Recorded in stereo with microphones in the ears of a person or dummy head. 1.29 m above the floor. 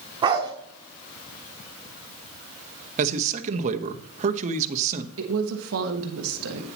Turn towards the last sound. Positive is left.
turn(degrees=-75)  # may be behind; listen again after turning